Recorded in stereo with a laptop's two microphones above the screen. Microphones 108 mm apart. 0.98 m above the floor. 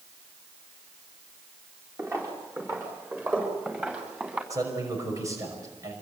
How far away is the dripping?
No dripping in this recording.